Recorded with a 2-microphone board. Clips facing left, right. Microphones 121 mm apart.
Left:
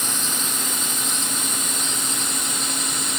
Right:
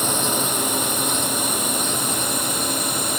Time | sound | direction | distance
0.0 | a drone | 70° right (ahead or behind) | ?